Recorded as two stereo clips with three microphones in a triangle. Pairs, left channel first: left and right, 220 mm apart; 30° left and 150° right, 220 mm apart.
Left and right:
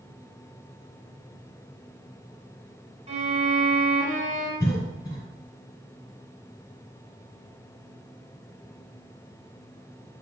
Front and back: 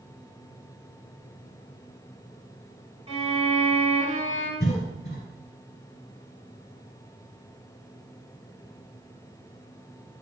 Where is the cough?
45° left, 1.3 m.